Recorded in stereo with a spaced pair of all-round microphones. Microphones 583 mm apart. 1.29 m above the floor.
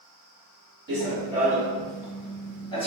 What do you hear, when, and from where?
0.9 s running footsteps: 20° right (ahead or behind), 1.5 m; by 2.9 s 10° left (ahead or behind), 1.2 m